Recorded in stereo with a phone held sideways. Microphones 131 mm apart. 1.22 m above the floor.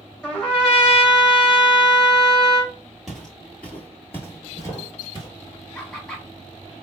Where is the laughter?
10° left (ahead or behind), 1.5 m.